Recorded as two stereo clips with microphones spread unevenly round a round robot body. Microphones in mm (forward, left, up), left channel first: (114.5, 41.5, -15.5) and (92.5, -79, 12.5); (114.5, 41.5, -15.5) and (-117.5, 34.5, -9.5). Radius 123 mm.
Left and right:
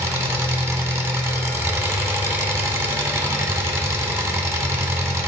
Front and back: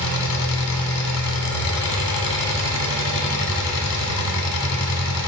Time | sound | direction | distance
0.0 | an engine running | 30° right | 1.5 m